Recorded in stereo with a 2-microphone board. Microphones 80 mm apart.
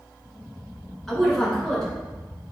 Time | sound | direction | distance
1.1 | a woman speaking | 5° left (ahead or behind) | 1.5 m